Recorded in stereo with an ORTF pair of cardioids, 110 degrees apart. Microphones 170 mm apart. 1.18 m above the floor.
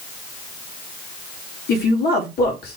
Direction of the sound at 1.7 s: 65° left.